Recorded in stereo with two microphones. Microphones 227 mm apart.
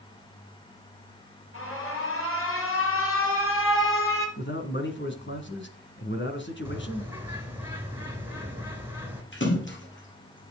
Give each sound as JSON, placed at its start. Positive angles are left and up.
{"t": 1.5, "sound": "an alarm", "side_deg": 60, "distance_m": 4.0}
{"t": 4.4, "sound": "a man speaking", "side_deg": 50, "distance_m": 2.0}
{"t": 6.7, "sound": "a bird", "side_deg": -10, "distance_m": 2.5}
{"t": 9.3, "sound": "a splash", "side_deg": 50, "distance_m": 3.0}